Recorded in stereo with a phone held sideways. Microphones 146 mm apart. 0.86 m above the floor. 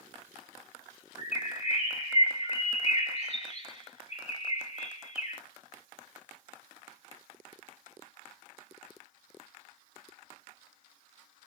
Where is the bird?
45° left (ahead or behind), 2.5 m.